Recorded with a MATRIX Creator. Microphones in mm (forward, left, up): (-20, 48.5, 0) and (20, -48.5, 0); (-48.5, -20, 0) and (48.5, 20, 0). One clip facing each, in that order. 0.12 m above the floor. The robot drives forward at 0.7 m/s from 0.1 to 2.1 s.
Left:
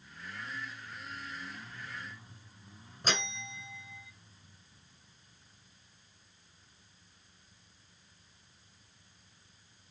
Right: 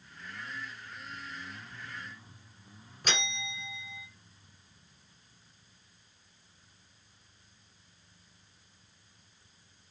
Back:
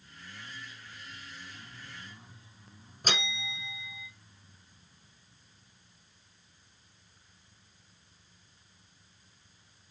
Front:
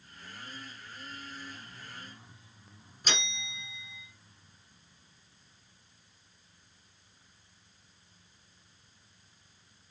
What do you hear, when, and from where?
3.0 s a bell: 170° left, 1.9 m